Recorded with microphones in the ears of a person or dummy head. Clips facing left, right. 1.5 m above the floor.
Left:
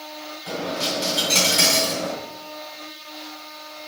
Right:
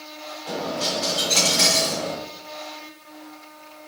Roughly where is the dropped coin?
Left.